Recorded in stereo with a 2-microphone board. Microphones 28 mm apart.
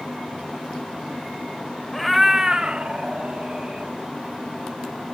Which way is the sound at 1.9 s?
5° left (ahead or behind).